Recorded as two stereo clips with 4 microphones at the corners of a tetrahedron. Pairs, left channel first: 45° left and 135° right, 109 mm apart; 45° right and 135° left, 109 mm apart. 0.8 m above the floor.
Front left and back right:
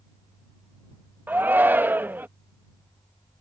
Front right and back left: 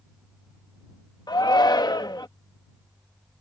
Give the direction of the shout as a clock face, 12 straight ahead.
2 o'clock.